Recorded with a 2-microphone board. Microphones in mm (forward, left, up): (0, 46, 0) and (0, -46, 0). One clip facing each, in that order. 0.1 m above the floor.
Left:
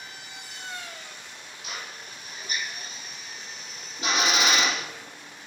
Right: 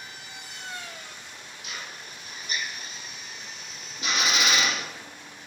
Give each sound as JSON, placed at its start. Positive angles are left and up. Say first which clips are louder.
{"t": 1.6, "sound": "a drill", "louder": "left 1 dB", "side_deg": 30, "distance_m": 3.0}